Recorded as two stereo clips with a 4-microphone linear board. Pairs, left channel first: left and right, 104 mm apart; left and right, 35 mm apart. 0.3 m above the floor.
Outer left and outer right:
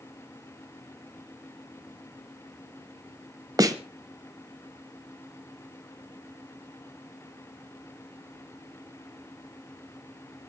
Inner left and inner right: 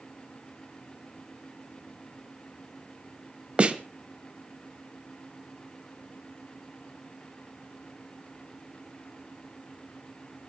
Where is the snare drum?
35° right (ahead or behind), 1.1 m.